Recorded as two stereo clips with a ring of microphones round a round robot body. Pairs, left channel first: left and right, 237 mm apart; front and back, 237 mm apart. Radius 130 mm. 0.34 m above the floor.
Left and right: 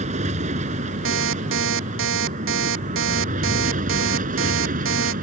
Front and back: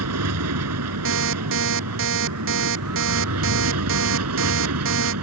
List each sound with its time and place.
0.0 s an aircraft: 155° right; by 5.2 s 150° right
1.1 s an alarm clock: 135° right